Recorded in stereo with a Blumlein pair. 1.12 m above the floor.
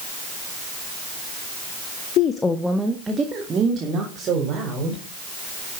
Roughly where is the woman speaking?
Ahead left.